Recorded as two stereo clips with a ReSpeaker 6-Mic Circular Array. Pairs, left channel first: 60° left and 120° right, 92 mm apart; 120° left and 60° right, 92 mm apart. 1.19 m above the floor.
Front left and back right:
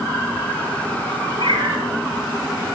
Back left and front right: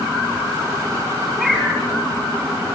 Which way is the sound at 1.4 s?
150° right.